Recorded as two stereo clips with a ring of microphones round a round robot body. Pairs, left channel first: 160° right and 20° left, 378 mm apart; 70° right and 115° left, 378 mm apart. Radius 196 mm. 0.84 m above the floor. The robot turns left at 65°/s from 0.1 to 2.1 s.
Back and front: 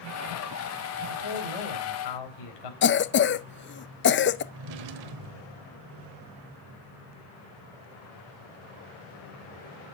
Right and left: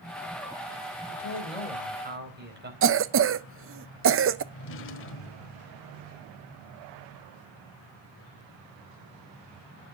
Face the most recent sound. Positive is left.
turn(degrees=-10)